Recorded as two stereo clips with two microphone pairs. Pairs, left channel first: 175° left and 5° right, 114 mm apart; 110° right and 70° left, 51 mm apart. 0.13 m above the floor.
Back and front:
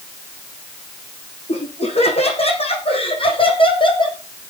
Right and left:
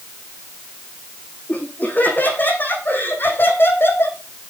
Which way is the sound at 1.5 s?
165° right.